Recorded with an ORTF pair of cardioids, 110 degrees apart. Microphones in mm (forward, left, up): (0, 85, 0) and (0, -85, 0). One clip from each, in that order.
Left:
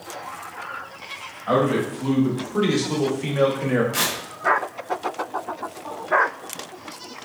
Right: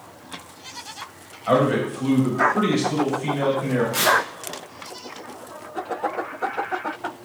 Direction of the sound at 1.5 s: 20° right.